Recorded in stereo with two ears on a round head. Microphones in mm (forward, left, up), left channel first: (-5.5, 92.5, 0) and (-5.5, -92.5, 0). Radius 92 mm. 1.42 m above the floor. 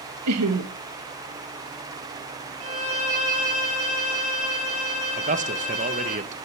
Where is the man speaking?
35° right (ahead or behind), 1.4 m.